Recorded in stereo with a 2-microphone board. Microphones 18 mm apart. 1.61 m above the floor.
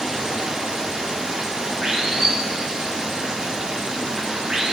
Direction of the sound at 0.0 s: 55° right (ahead or behind).